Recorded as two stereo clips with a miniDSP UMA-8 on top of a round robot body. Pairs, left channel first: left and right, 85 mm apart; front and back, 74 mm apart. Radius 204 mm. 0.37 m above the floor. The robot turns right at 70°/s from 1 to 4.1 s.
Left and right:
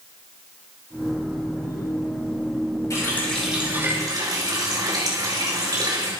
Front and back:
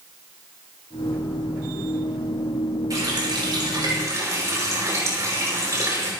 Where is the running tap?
140° left, 7 m; by 6.1 s 135° right, 7 m.